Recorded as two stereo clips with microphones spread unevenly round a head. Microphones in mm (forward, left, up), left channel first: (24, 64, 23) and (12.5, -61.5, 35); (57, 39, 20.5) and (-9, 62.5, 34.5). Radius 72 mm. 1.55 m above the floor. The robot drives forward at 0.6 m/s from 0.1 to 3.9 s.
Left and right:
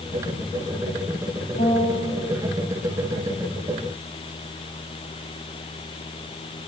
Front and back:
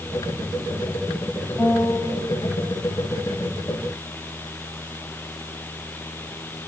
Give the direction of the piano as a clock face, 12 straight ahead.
10 o'clock.